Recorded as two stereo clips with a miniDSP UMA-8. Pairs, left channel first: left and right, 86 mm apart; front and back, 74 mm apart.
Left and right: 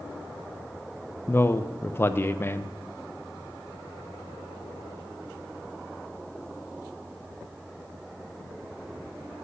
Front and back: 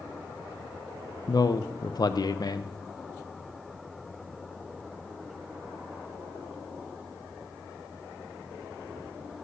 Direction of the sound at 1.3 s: 30° left.